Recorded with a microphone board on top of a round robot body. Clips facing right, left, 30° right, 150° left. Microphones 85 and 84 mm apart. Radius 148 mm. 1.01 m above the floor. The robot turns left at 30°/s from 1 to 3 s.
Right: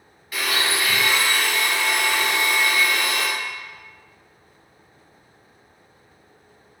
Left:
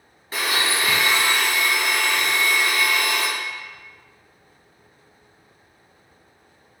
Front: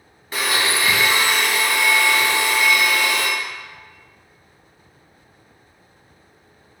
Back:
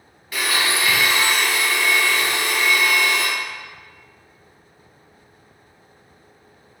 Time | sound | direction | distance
0.3 | a blender | 30° left | 0.8 m